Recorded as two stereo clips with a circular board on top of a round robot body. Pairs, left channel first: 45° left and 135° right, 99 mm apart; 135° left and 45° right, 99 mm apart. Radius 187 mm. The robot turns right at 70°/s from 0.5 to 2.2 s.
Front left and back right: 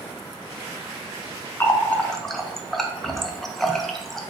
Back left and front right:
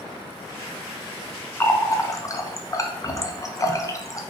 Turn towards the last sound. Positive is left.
turn(degrees=130)